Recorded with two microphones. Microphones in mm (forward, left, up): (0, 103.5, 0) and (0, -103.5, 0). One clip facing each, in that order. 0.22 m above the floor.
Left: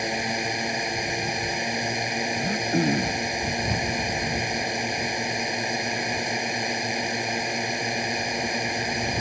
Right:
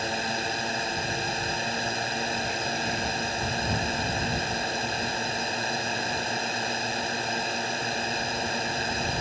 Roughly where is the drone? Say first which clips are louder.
Left 3 dB; centre.